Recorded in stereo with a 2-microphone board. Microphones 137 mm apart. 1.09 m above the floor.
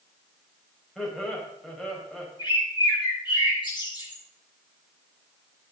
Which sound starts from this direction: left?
A bird, at 2.4 s.